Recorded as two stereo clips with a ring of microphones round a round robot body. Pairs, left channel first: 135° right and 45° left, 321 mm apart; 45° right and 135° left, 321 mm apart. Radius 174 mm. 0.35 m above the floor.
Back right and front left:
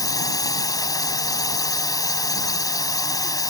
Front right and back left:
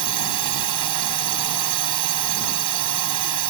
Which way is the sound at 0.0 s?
145° left.